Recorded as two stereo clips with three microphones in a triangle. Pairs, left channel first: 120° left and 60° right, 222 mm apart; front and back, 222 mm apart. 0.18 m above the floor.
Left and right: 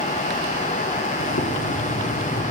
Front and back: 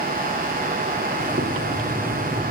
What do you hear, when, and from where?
1.2 s boiling: 125° left, 3 m